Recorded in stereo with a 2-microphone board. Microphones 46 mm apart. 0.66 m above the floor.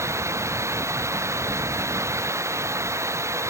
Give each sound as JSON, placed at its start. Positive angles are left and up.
{"t": 0.0, "sound": "running water", "side_deg": -80}